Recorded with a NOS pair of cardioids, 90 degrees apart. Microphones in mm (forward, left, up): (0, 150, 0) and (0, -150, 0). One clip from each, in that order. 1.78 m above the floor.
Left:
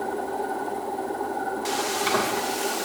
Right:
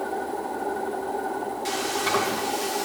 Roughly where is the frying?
Ahead.